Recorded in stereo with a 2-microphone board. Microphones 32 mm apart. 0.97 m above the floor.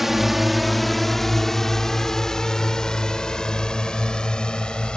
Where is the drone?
10° right (ahead or behind); by 5.0 s 25° left (ahead or behind).